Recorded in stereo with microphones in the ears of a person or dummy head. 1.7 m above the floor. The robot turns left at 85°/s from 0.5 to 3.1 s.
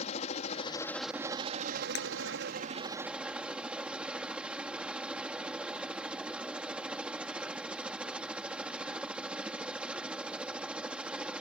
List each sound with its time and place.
0.0 s a helicopter: 45° left; by 11.4 s 175° right
1.9 s breaking glass: 65° left (ahead or behind); by 2.1 s 75° left (ahead or behind)